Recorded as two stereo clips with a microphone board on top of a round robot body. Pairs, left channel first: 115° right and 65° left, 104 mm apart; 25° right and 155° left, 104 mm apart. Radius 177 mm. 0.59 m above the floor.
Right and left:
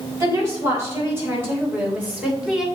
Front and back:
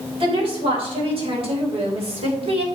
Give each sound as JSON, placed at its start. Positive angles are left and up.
{"t": 0.2, "sound": "a woman speaking", "azimuth_deg": 130, "distance_m": 4.0}